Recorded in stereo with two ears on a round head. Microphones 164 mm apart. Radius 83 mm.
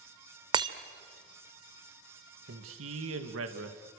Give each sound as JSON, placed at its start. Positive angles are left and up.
{"t": 0.5, "sound": "breaking glass", "side_deg": -25, "distance_m": 1.5}
{"t": 2.5, "sound": "a man speaking", "side_deg": -85, "distance_m": 2.5}